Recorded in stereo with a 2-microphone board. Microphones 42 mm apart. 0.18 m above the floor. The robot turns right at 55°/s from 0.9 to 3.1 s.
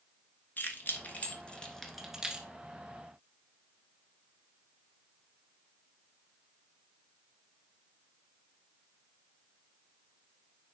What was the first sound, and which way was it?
Keys jangling, 50° left (ahead or behind).